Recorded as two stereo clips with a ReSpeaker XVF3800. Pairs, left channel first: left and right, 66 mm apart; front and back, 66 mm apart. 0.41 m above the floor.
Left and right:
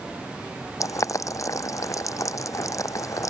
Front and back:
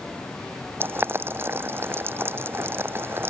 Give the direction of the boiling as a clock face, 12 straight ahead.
8 o'clock.